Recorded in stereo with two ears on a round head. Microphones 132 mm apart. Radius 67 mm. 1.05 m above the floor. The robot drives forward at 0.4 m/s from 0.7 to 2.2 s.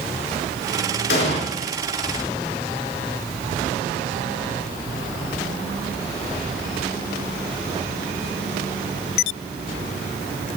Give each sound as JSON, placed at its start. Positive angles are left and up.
{"t": 1.1, "sound": "an explosion", "side_deg": 75, "distance_m": 2.0}